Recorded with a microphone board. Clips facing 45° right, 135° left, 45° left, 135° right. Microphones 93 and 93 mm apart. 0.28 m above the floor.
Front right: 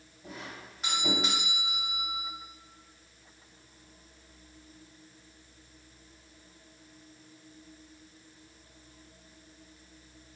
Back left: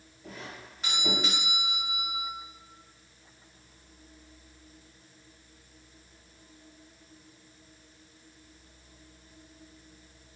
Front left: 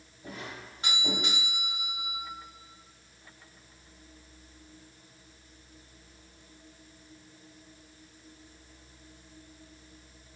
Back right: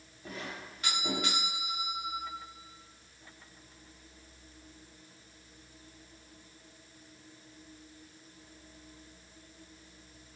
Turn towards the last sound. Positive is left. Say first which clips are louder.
# even, even
turn(degrees=35)